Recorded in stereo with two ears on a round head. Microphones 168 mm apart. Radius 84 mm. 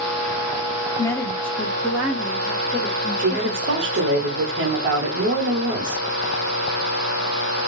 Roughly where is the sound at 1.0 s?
Centre.